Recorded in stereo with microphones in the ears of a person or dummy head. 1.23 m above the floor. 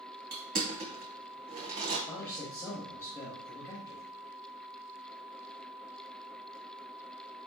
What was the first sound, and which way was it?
Crushing, 45° right (ahead or behind).